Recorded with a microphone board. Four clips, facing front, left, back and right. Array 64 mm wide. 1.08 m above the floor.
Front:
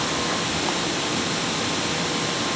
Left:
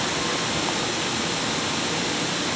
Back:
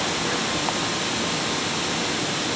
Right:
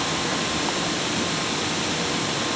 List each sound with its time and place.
Only background noise.